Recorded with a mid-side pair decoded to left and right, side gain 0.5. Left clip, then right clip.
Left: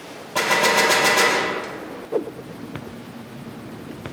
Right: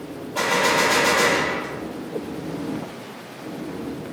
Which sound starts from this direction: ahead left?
A gunshot, at 0.3 s.